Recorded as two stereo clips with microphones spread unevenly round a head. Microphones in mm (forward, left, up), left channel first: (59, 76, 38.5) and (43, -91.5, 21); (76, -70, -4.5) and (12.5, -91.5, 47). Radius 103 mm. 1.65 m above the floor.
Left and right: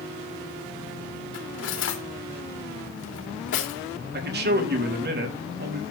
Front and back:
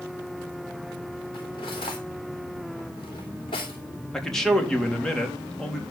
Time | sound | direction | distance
1.3 | cutlery clinking | 85° left | 2.5 m
4.1 | a man speaking | 70° right | 3.5 m